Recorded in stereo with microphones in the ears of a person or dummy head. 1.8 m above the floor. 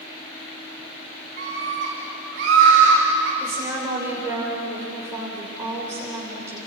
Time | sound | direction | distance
1.4 | a scream | 55° right (ahead or behind) | 3.5 m
3.4 | a woman speaking | 10° right (ahead or behind) | 7.5 m